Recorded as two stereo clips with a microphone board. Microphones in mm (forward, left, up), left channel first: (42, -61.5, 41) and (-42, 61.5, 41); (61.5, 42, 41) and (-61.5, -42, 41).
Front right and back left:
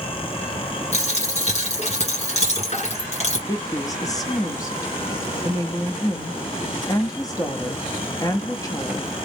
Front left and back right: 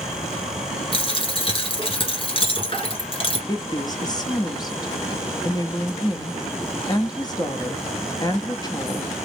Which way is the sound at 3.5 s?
5° right.